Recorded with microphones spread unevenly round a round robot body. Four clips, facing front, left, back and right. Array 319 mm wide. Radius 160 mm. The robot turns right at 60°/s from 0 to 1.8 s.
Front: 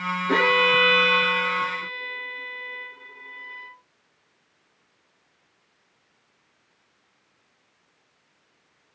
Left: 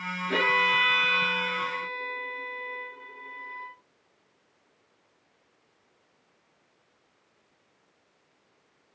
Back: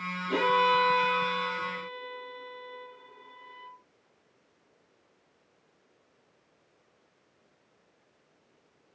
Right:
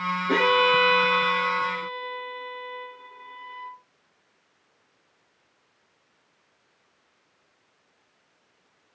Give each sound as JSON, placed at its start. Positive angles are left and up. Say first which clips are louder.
{"t": 0.3, "sound": "a violin", "louder": "right 5 dB, front 3 dB", "azimuth_deg": -40, "distance_m": 9.0}